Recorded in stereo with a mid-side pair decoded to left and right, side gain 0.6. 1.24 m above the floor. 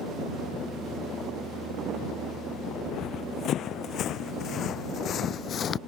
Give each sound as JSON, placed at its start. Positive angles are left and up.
{"t": 2.8, "sound": "running footsteps", "azimuth_deg": 55}